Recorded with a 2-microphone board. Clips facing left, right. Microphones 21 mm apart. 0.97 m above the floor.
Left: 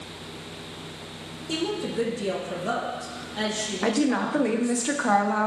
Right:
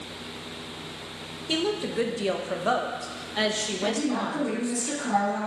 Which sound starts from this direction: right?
A woman speaking, at 1.5 s.